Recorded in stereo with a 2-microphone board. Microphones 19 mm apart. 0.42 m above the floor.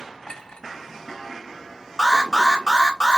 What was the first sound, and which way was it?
A clink, 60° left (ahead or behind).